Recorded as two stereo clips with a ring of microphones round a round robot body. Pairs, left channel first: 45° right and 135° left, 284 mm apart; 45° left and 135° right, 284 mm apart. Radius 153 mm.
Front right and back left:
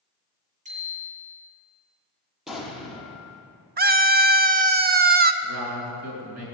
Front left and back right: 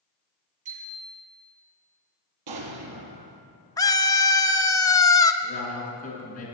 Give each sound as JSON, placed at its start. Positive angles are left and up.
{"t": 0.7, "sound": "a bicycle bell", "azimuth_deg": -160, "distance_m": 7.0}
{"t": 2.5, "sound": "an explosion", "azimuth_deg": -135, "distance_m": 2.0}
{"t": 3.8, "sound": "a scream", "azimuth_deg": 115, "distance_m": 1.1}
{"t": 5.4, "sound": "a man speaking", "azimuth_deg": 110, "distance_m": 5.5}